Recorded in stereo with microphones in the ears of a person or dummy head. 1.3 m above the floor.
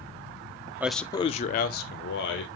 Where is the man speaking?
15° right (ahead or behind), 0.7 m; by 2.5 s 70° left (ahead or behind), 1.7 m.